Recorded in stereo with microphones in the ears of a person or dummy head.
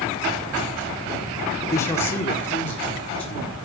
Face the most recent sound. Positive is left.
turn(degrees=10)  # may be behind; listen again after turning